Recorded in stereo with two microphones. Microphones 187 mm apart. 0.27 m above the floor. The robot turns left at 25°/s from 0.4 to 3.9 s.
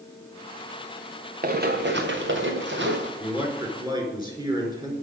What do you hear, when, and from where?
1.4 s running footsteps: 50° right (ahead or behind), 2 m; by 3.1 s 70° right (ahead or behind), 3.5 m
3.2 s a man speaking: 5° right (ahead or behind), 4 m; by 4.9 s 20° right (ahead or behind), 4 m